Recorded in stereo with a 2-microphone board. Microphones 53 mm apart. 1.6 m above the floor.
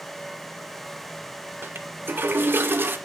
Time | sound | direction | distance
1.6 | a toilet flushing | 40° right (ahead or behind) | 0.7 m